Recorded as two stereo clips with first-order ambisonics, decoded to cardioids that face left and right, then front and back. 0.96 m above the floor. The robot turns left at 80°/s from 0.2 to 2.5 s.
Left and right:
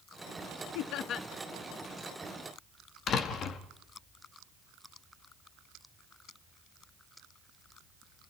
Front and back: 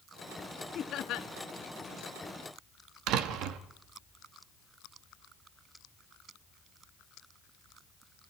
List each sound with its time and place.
0.8 s laughter: 65° left, 1.0 m; by 1.3 s 25° left, 1.0 m
3.1 s a door slam: 145° left, 1.3 m